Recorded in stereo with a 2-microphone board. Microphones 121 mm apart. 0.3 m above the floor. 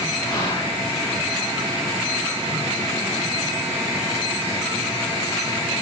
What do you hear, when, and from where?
0.3 s whispering: 45° left (ahead or behind), 1.6 m